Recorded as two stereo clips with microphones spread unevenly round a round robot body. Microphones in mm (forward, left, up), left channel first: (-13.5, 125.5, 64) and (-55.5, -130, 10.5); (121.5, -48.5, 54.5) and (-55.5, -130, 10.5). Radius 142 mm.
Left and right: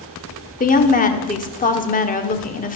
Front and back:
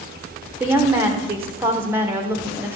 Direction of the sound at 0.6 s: 140° left.